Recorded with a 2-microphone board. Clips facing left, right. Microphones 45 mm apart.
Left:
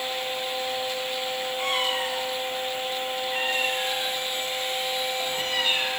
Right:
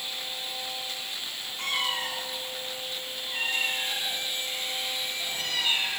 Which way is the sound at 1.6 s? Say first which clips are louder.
Left 2 dB; 10° left (ahead or behind).